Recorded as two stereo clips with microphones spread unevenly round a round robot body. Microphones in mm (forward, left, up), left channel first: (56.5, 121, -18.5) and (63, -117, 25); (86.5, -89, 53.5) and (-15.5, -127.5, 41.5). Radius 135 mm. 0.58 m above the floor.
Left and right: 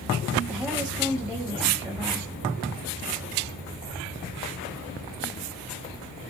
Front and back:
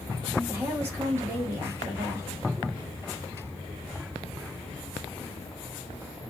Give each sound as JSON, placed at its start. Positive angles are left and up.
{"t": 0.5, "sound": "a woman speaking", "azimuth_deg": 170, "distance_m": 1.1}